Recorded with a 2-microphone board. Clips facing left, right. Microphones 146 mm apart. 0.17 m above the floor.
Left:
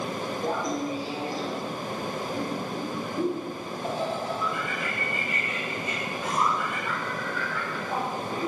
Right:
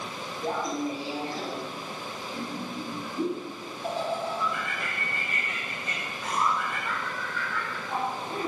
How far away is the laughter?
About 3 m.